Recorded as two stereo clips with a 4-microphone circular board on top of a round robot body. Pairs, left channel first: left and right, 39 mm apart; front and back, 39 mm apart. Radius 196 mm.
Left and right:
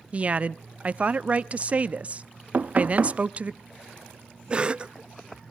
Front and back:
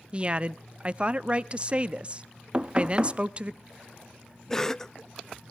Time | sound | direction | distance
0.1 | a woman speaking | 130° right | 0.8 m
2.5 | knocking | 120° right | 0.6 m
4.5 | a cough | 60° right | 0.8 m